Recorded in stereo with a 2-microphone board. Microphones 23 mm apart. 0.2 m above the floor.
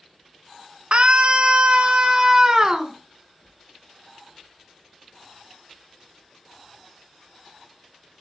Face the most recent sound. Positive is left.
turn(degrees=-20)  # may be behind; listen again after turning